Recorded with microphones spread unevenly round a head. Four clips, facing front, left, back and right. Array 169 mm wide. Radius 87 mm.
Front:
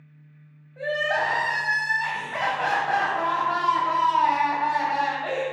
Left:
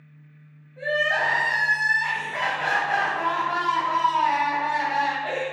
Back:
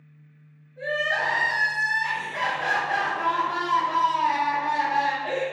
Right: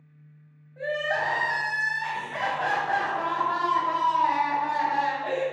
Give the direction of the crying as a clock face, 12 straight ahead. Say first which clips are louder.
Left 3 dB, front 2 dB; 1 o'clock.